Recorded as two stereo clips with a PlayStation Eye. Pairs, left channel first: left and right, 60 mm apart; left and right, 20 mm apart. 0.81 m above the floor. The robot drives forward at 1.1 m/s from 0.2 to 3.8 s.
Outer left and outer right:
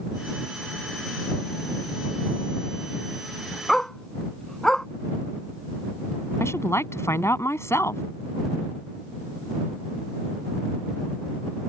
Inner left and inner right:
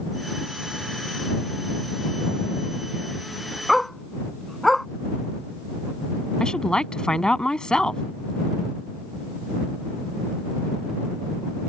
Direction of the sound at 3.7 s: 10° left (ahead or behind).